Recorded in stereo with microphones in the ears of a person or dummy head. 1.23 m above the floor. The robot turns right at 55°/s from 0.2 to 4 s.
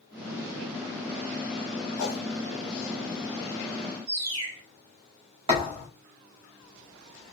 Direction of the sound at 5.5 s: 25° right (ahead or behind).